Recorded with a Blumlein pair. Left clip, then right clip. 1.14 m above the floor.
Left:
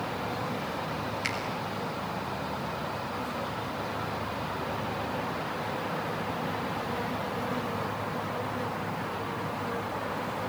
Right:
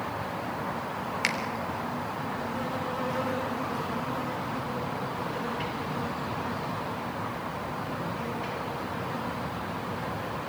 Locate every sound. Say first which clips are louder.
1.2 s a finger snap: right 5 dB; 55° right, 4 m